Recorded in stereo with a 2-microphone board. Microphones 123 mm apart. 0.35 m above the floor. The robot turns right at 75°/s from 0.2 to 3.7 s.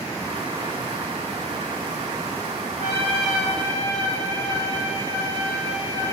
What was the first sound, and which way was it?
A trumpet, 145° left.